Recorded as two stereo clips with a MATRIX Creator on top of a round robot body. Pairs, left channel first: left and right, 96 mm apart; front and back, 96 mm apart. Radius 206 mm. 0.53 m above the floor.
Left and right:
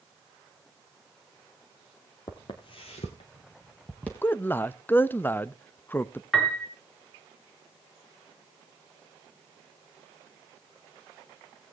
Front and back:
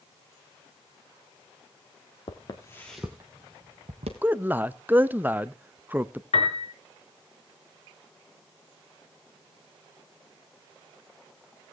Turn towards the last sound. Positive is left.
turn(degrees=5)